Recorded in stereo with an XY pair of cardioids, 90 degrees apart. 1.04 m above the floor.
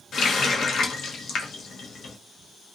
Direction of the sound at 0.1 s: 70° left.